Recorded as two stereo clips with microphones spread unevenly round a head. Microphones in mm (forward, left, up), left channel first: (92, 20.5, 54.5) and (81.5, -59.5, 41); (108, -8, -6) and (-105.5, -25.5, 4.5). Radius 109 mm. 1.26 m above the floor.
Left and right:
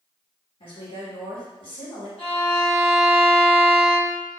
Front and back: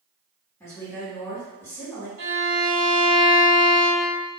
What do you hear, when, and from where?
0.6 s a woman speaking: 85° left, 1.7 m
2.2 s a violin: 140° left, 1.9 m